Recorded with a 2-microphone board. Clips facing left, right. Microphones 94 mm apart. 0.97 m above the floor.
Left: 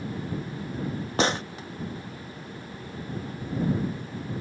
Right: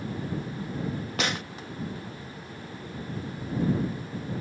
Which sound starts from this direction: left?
A gunshot, at 1.2 s.